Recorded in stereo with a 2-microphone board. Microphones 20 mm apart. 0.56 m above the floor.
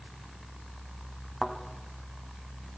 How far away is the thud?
About 1.9 m.